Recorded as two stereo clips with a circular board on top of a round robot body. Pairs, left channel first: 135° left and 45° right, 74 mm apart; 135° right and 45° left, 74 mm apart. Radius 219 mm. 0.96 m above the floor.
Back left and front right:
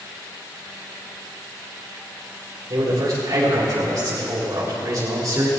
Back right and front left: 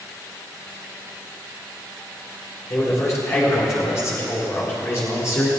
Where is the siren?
I don't hear a siren.